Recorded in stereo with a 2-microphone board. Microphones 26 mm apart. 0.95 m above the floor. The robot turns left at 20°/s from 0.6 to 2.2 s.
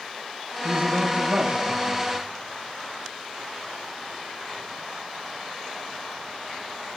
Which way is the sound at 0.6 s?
80° right.